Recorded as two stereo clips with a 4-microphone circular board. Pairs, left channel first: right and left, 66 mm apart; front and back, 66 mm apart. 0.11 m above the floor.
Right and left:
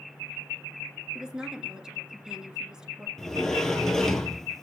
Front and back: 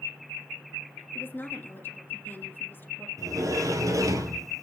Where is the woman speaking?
20° left, 1.9 m.